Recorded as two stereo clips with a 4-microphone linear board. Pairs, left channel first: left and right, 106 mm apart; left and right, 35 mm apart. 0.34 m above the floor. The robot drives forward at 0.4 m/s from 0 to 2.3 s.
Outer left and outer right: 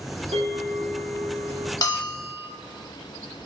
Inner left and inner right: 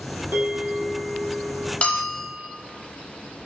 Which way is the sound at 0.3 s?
75° right (ahead or behind).